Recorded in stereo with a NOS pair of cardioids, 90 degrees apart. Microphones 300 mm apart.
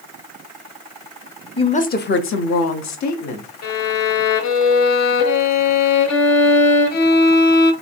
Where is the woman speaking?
15° left, 0.8 m; by 3.5 s 75° left, 1.3 m.